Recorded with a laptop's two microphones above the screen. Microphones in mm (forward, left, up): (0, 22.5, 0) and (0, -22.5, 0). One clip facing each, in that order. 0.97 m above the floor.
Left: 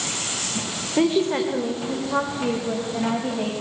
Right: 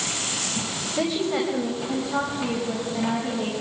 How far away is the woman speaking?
About 3 m.